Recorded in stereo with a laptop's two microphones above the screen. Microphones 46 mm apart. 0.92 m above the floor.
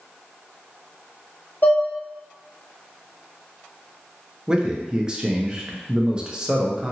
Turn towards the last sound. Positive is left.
turn(degrees=-20)  # may be behind; listen again after turning